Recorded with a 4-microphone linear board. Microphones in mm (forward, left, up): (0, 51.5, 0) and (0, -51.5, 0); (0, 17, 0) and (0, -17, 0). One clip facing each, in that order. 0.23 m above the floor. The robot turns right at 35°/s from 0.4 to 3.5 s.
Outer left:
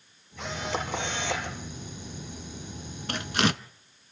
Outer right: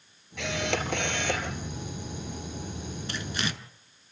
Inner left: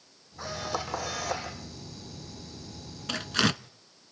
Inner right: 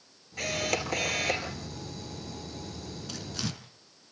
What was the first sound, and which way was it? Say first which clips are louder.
A camera shutter: outer right 2 dB, inner right 4 dB; 90° right.